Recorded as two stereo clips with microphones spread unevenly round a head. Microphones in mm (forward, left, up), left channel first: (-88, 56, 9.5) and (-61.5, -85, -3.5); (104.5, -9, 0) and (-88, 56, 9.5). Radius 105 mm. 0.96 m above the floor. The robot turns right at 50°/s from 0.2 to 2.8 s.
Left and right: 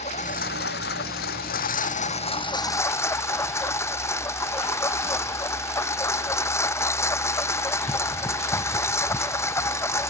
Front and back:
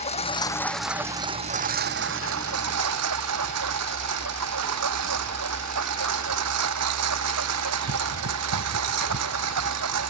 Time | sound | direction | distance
0.0 | a lawn mower | 40° left | ?